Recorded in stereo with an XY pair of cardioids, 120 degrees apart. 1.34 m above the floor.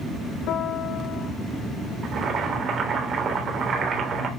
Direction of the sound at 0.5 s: 70° left.